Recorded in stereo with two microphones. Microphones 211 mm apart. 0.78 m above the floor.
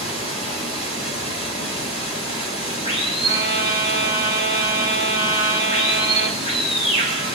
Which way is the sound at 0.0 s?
25° left (ahead or behind).